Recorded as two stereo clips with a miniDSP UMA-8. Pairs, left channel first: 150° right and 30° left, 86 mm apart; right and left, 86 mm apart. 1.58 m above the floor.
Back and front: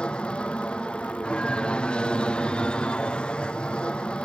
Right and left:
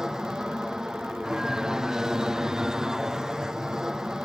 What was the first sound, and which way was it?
An aircraft, 160° left.